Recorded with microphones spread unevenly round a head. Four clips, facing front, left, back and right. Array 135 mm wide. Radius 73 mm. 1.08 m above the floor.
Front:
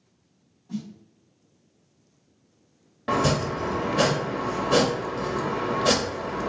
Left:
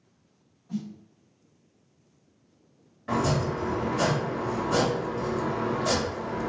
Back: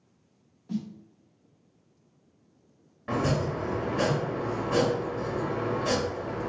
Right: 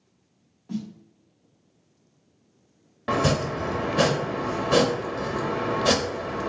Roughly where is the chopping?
Ahead right.